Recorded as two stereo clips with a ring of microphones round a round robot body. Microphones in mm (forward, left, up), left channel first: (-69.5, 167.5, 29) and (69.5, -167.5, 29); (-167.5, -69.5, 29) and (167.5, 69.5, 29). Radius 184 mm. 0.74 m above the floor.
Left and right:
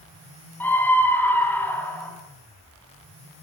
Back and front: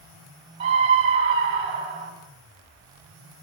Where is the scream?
30° left, 6.5 m.